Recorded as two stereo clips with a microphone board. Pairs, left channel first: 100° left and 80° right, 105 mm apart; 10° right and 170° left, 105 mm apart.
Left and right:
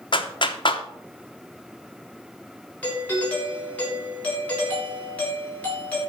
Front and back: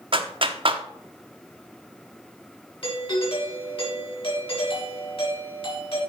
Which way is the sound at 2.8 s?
25° left.